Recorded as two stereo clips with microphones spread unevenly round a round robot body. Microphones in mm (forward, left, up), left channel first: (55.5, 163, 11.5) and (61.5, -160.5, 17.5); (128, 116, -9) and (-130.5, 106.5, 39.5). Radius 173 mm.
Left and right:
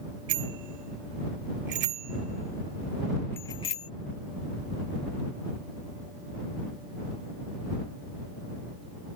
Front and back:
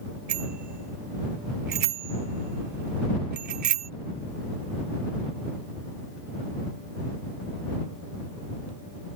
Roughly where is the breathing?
I don't hear breathing.